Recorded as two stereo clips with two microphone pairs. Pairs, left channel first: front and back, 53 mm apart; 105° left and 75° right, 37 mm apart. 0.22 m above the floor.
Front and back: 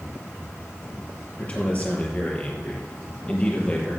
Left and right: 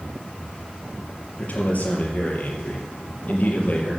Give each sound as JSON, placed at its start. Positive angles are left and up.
{"t": 1.4, "sound": "a man speaking", "azimuth_deg": 65, "distance_m": 4.5}